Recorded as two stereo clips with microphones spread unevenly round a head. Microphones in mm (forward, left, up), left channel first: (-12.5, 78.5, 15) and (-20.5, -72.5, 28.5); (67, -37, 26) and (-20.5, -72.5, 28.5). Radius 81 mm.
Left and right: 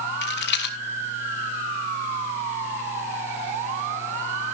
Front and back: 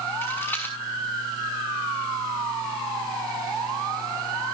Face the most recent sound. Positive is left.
turn(degrees=100)